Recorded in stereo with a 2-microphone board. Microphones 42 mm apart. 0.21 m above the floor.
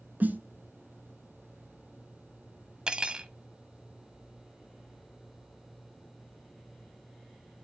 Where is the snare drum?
45° right (ahead or behind), 0.8 m.